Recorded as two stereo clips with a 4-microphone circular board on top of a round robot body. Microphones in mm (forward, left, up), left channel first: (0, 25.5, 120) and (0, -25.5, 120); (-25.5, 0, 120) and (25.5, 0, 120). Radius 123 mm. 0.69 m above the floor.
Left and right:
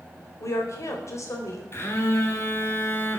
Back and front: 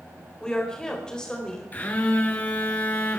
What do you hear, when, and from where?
0.4 s a woman speaking: 105° left, 4 m
1.7 s a phone buzzing: 125° left, 3 m